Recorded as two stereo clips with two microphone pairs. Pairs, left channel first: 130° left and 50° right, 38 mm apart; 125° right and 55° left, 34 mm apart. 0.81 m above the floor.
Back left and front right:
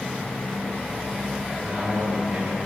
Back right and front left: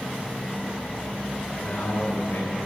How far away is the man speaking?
About 7 m.